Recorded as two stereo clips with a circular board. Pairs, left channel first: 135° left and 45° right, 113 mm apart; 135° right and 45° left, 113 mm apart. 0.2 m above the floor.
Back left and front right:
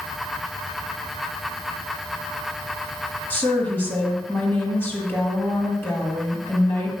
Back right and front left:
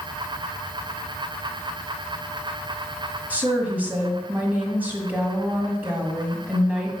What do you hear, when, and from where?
3.3 s a woman speaking: 95° left, 1.6 m